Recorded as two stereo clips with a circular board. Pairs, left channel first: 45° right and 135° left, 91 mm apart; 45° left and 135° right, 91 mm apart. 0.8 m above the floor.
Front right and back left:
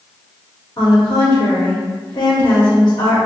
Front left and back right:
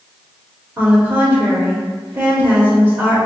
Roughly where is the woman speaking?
Right.